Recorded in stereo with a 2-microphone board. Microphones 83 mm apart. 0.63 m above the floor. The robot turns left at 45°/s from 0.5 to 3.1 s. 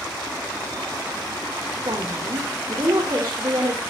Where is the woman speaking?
65° right, 2.5 m; by 3.8 s 125° right, 2.5 m.